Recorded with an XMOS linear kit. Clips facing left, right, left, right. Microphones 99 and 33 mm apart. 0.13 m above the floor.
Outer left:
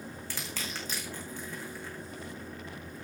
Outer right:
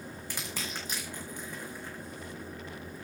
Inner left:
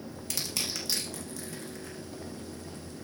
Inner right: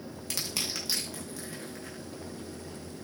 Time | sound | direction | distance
0.3 | crushing | 15° right (ahead or behind) | 4.5 m